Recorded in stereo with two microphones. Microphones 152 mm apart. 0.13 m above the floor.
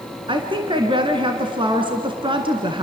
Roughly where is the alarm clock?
I don't hear an alarm clock.